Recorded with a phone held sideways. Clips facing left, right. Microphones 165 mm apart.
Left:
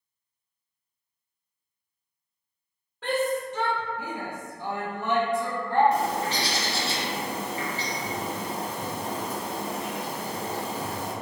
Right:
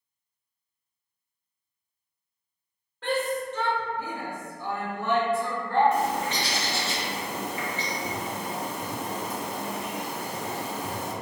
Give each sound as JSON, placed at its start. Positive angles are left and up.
{"t": 3.0, "sound": "a shout", "side_deg": 5, "distance_m": 0.7}
{"t": 5.9, "sound": "a bird", "side_deg": 35, "distance_m": 0.6}